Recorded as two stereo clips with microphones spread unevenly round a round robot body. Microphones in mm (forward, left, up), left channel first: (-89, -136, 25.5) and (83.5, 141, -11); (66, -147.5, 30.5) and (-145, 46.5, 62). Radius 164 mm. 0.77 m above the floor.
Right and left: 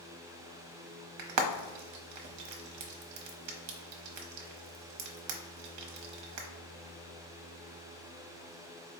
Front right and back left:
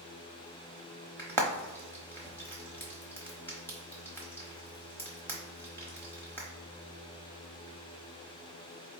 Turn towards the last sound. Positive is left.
turn(degrees=35)